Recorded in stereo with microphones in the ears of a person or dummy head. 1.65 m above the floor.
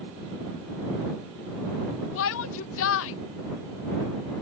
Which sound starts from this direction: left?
A shout, at 2.1 s.